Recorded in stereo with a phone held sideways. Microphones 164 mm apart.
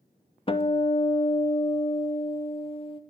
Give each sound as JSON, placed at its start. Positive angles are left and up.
{"t": 0.5, "sound": "a guitar", "side_deg": 30, "distance_m": 0.5}